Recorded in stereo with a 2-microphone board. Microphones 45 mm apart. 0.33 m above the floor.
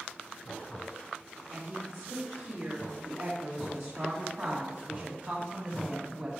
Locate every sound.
1.5 s a woman speaking: 70° right (ahead or behind), 2.5 m; by 6.3 s 20° right (ahead or behind), 2 m